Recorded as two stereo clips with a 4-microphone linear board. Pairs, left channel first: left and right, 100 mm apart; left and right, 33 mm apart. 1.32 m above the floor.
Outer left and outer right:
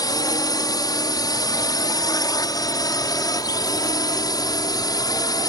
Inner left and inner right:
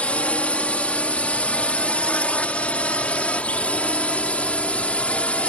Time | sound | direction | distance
0.0 | a drone | 40° left (ahead or behind) | ?